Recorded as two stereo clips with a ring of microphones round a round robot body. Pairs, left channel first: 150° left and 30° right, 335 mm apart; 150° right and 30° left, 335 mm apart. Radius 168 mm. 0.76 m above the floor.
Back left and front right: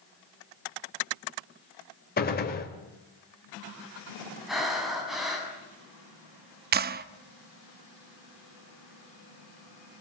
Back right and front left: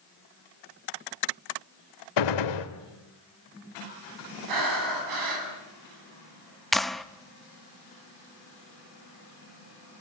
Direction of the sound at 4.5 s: 60° left.